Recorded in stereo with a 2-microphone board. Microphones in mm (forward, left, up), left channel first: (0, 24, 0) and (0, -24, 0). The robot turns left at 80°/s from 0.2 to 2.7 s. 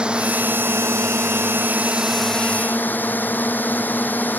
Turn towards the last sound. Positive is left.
turn(degrees=140)